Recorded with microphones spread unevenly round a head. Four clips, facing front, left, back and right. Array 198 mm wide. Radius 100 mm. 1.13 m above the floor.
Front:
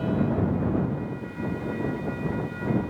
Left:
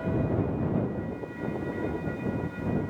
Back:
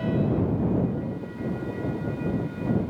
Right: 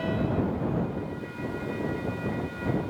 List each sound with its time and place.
Only background noise.